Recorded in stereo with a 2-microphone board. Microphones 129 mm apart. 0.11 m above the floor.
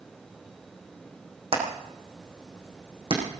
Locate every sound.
1.5 s hammering: 50° right (ahead or behind), 6 m